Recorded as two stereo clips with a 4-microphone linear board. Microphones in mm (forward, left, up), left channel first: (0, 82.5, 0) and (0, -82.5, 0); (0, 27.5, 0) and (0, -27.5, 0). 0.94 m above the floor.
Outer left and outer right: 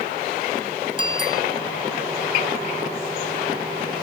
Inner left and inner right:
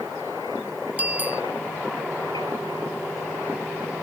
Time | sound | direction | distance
1.0 | a bicycle bell | 30° right (ahead or behind) | ?